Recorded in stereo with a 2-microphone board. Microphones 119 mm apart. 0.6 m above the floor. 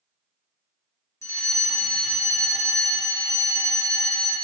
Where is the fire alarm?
25° left (ahead or behind), 2 m.